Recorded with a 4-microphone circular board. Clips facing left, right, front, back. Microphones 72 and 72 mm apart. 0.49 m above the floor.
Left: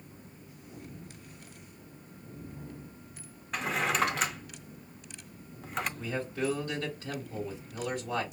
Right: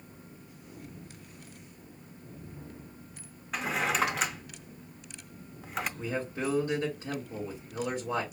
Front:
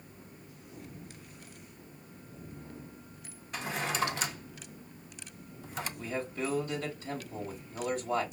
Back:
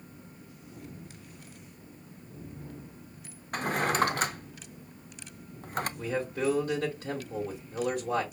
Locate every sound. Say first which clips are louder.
3.5 s a drawer: even, back 6 dB; straight behind, 0.5 m
6.0 s a man speaking: even, back 3 dB; 155° right, 1.9 m